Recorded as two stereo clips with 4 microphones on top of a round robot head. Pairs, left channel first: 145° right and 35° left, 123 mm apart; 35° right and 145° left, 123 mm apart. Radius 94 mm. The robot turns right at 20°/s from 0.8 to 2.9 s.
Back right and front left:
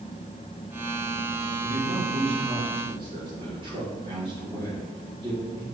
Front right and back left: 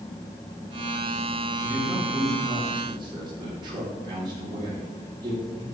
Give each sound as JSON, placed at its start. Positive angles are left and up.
{"t": 1.6, "sound": "a man speaking", "azimuth_deg": 65, "distance_m": 3.5}